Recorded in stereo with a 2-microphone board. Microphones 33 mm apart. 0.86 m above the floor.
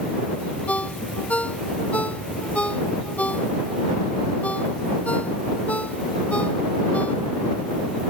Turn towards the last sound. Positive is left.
turn(degrees=45)  # may be behind; listen again after turning